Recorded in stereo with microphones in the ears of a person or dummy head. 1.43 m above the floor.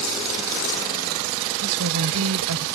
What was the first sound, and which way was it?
A woman speaking, 85° right.